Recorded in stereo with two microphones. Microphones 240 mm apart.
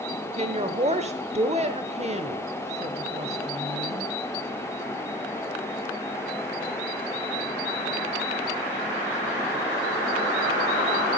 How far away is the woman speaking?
About 0.9 m.